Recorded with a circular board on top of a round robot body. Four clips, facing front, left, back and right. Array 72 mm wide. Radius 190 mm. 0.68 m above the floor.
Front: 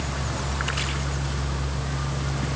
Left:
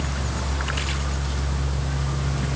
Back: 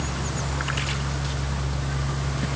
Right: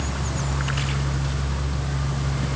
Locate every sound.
Only background noise.